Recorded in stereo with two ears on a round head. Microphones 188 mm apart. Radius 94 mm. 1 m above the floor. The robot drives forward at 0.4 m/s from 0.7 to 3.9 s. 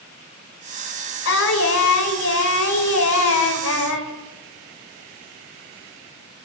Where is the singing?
70° left (ahead or behind), 5.5 m; by 4.1 s 75° left (ahead or behind), 5.5 m.